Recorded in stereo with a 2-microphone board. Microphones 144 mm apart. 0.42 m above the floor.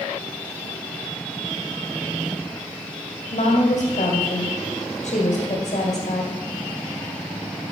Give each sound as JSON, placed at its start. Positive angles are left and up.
{"t": 3.3, "sound": "a woman speaking", "side_deg": 55, "distance_m": 2.0}